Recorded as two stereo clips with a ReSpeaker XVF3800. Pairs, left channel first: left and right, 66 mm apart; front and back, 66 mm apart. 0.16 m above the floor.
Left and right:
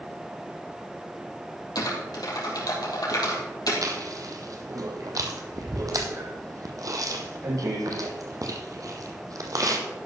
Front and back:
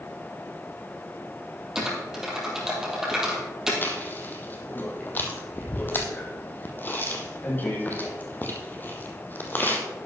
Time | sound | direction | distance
1.8 | typing on a keyboard | 100° left | 3 m
3.8 | chewing | 60° right | 1.5 m